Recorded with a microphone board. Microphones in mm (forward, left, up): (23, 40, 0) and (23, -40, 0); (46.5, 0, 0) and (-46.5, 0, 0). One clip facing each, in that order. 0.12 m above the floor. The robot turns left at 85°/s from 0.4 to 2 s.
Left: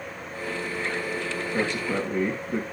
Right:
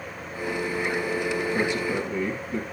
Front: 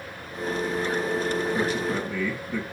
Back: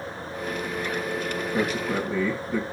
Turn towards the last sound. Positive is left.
turn(degrees=105)